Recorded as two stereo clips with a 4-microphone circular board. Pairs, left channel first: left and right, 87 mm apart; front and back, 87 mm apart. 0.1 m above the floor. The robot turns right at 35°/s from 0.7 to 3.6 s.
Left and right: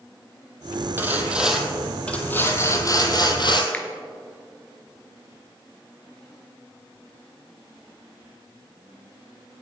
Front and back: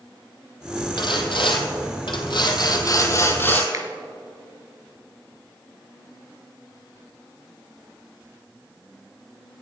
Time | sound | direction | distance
1.0 | sawing | 25° right | 1.4 m
3.7 | a finger snap | 155° left | 1.3 m